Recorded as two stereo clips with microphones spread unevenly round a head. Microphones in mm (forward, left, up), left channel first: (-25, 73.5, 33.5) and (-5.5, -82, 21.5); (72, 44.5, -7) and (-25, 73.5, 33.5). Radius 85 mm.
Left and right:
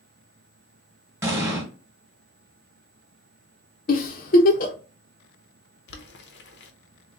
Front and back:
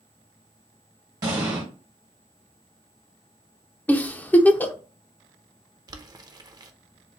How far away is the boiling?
About 0.8 m.